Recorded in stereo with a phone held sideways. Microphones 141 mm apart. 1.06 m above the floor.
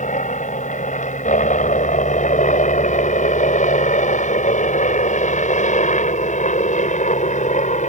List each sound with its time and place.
0.0 s a helicopter: 60° left (ahead or behind)